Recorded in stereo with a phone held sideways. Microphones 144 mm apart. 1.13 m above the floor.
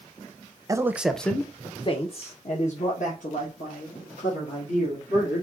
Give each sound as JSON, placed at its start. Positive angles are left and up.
{"t": 0.7, "sound": "a man speaking", "side_deg": -25, "distance_m": 0.6}